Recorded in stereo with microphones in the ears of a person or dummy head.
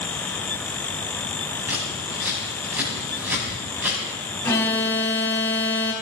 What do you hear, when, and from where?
1.7 s scissors: 10° right (ahead or behind), 7.5 m
4.4 s an alarm: 10° left (ahead or behind), 3.5 m